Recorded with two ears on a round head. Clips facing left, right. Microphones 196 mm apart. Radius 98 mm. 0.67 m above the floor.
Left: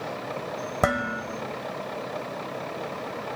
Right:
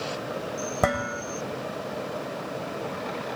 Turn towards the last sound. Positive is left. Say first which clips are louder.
# left 1 dB
turn(degrees=5)  # may be behind; listen again after turning